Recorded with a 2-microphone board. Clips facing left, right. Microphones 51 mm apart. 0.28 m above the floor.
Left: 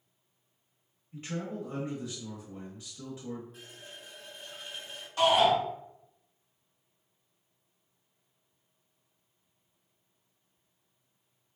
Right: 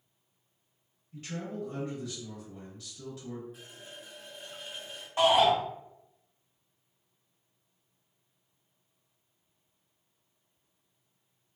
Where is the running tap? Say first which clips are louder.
Even; 5° right (ahead or behind), 1.3 m.